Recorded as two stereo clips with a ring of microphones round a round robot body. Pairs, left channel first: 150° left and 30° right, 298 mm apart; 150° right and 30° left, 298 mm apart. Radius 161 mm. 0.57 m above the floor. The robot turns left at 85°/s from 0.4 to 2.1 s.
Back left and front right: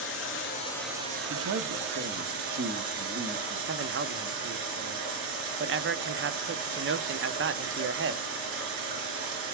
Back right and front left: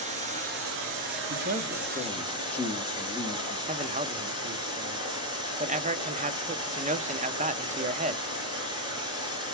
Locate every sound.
0.0 s running water: 100° left, 4 m; by 9.5 s 45° right, 4 m
1.3 s a man speaking: straight ahead, 1.2 m; by 3.6 s 70° right, 1.2 m
3.7 s a man speaking: 20° right, 0.8 m